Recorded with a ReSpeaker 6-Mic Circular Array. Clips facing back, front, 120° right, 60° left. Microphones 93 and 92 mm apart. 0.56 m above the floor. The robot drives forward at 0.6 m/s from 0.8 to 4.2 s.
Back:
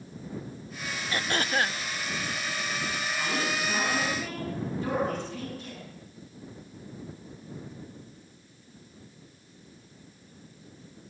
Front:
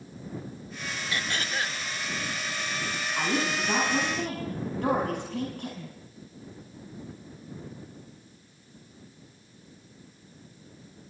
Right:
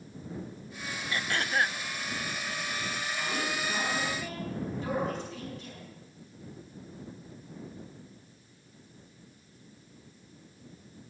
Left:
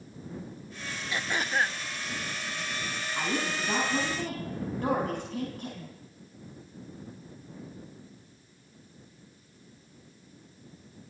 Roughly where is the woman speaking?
Ahead.